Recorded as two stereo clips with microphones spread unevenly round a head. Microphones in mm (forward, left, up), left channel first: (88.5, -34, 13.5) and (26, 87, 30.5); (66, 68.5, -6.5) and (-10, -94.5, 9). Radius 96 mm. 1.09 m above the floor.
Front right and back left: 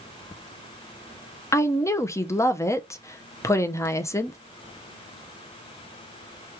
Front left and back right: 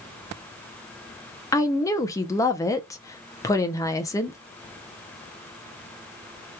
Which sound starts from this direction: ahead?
A woman speaking, at 1.5 s.